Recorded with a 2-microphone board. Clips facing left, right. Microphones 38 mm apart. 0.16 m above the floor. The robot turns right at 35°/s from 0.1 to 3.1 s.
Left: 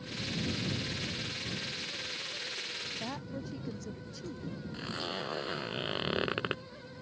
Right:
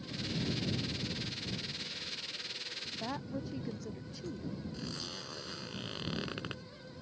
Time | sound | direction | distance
2.9 | a woman speaking | centre (ahead or behind) | ?
4.7 | a zipper | 35° left (ahead or behind) | ?